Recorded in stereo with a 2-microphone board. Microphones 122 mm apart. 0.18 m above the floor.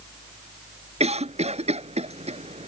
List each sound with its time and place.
1.0 s a cough: 60° right (ahead or behind)